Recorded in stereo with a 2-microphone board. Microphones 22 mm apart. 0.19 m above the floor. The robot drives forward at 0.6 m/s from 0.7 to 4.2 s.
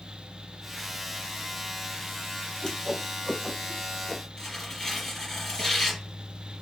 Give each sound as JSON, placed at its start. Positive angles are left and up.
{"t": 2.6, "sound": "a whoosh", "side_deg": 25, "distance_m": 1.5}
{"t": 4.4, "sound": "tearing paper", "side_deg": 10, "distance_m": 2.5}